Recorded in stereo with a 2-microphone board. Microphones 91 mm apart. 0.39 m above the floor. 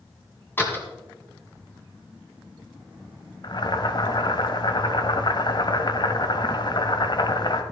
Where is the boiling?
50° left (ahead or behind), 1.0 m.